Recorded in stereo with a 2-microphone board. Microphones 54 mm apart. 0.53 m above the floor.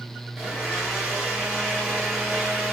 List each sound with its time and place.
0.4 s a blender: 5° right (ahead or behind), 1.7 m